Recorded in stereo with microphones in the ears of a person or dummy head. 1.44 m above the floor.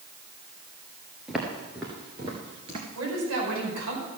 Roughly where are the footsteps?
Centre.